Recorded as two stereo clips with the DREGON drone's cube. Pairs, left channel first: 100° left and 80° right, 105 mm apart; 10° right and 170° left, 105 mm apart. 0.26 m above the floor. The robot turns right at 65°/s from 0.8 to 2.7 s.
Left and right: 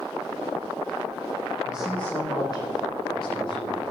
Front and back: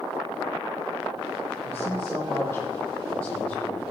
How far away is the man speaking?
About 8.5 m.